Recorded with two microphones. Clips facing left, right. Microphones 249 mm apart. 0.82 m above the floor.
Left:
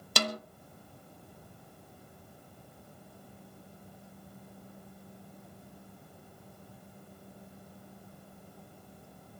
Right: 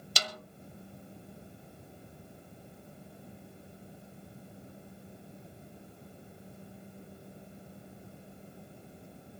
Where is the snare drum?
55° left (ahead or behind), 1.0 m.